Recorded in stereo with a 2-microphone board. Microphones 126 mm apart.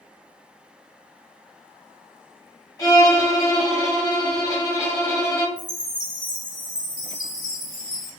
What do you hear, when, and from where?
2.8 s a violin: 25° left (ahead or behind), 1.4 m
5.6 s a chime: 35° left (ahead or behind), 0.9 m